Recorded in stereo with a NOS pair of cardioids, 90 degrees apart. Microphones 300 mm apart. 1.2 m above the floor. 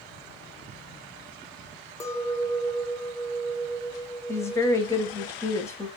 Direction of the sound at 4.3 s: 10° left.